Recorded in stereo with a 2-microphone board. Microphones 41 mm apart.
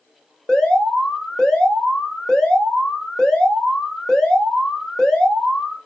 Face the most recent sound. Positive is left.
turn(degrees=10)  # may be behind; listen again after turning